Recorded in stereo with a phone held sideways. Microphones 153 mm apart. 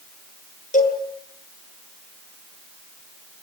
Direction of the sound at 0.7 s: 50° left (ahead or behind).